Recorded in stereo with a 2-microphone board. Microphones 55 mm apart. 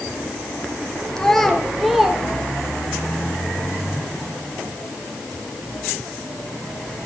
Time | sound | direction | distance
1.2 | a child speaking | 10° left (ahead or behind) | 1.3 m